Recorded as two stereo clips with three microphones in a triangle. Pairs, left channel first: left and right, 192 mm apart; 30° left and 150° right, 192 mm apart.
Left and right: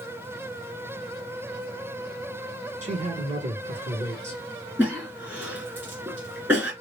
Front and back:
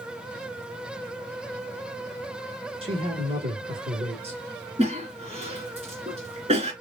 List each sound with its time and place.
2.8 s a man speaking: 115° right, 1.5 m
4.8 s a cough: 160° right, 1.7 m